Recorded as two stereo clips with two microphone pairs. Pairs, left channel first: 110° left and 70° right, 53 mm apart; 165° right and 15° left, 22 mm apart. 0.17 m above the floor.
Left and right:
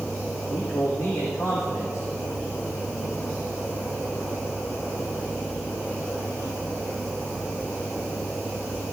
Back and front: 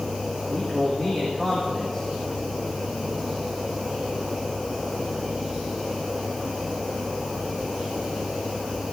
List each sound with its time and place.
0.5 s a man speaking: 130° left, 8.5 m